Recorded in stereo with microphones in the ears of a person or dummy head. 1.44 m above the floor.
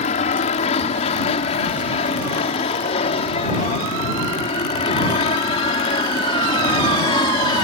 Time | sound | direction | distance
0.0 | an aircraft | 45° left (ahead or behind) | ?